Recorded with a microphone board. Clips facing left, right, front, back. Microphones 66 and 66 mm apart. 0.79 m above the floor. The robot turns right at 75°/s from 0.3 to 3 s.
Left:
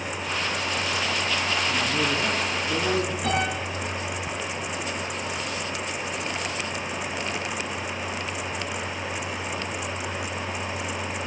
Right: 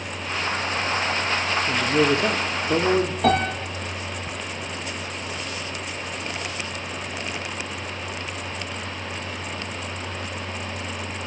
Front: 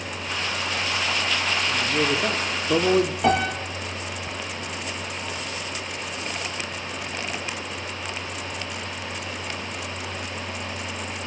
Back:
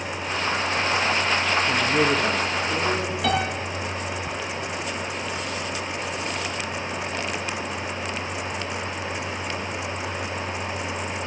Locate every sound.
1.7 s a man speaking: 120° right, 1.9 m; by 3.1 s 20° right, 1.9 m
3.2 s a piano: 65° right, 8 m